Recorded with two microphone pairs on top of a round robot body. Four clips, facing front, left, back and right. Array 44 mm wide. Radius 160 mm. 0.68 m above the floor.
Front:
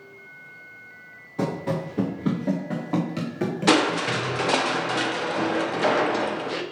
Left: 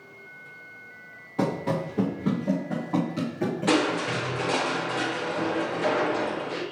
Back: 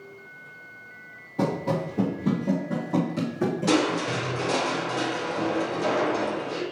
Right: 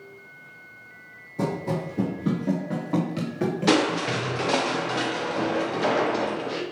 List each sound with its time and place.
1.4 s running footsteps: 80° left, 0.7 m; by 4.1 s 35° right, 1.4 m
3.7 s crushing: 10° right, 0.9 m